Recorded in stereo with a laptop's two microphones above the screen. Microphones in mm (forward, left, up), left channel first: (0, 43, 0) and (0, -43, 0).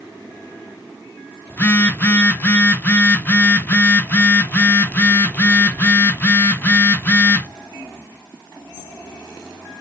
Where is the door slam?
I don't hear a door slam.